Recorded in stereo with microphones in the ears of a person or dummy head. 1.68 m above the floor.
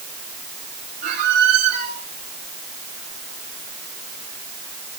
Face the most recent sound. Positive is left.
turn(degrees=-55)  # may be behind; listen again after turning